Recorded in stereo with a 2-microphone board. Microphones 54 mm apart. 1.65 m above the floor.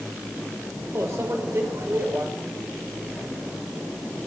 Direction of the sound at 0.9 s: 75° right (ahead or behind).